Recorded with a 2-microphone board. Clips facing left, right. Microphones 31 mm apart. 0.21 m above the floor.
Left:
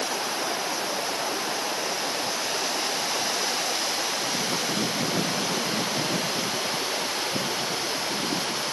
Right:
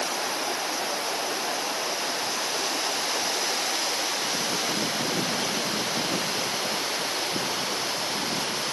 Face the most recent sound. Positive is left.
No sound to turn to.